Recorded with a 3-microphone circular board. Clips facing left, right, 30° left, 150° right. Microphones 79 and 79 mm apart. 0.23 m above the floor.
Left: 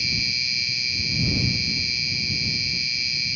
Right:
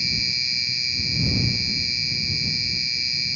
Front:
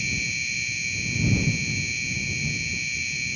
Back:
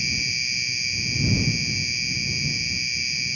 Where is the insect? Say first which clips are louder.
Left 1 dB, even; 75° right.